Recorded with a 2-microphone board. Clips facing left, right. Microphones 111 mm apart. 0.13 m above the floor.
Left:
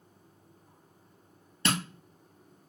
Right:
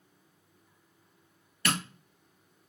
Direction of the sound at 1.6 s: 25° left (ahead or behind).